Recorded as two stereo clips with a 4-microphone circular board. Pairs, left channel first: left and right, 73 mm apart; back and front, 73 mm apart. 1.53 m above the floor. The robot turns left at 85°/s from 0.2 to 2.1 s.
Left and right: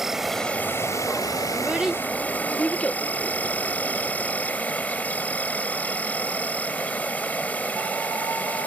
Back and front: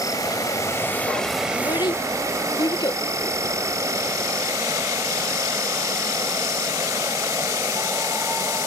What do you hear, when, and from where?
0.0 s an insect: 175° right; by 8.7 s 25° left
1.5 s a child speaking: 150° right; by 3.0 s 160° left